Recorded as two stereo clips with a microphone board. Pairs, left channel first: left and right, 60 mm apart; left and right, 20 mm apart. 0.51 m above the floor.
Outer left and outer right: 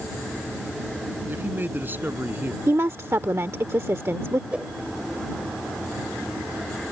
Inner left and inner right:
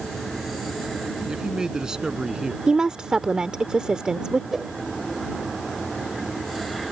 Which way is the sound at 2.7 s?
50° right (ahead or behind).